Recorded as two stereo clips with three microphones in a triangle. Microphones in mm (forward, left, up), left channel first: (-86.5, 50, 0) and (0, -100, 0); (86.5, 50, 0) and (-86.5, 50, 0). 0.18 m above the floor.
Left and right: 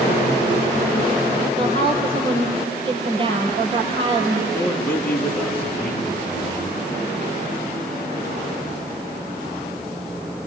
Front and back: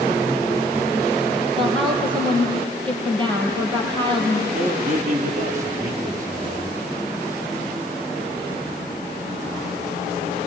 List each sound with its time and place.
1.6 s a woman speaking: 120° right, 5 m
4.5 s a man speaking: 160° right, 2.5 m